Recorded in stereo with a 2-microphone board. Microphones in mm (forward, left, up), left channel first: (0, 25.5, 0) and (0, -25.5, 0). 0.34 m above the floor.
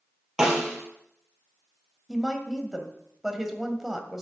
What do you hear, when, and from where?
0.4 s a snare drum: 10° right (ahead or behind), 3 m
2.1 s a woman speaking: 5° right (ahead or behind), 1.8 m